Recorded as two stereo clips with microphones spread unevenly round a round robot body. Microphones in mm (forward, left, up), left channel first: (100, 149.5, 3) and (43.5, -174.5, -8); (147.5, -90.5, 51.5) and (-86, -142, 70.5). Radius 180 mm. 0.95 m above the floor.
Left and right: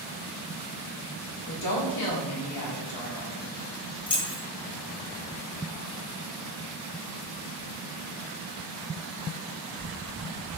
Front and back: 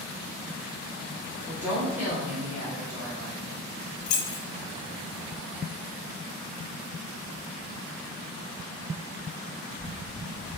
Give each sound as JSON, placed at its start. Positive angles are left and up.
{"t": 1.5, "sound": "a woman speaking", "azimuth_deg": 110, "distance_m": 0.9}
{"t": 4.1, "sound": "keys jangling", "azimuth_deg": 5, "distance_m": 0.6}